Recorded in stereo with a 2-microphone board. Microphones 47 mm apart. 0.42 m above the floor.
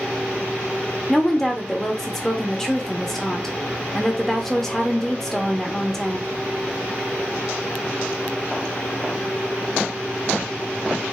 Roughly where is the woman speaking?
Centre.